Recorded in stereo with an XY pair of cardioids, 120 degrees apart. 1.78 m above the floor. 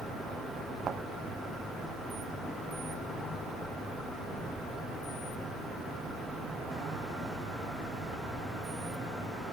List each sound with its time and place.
0.9 s a thud: 45° right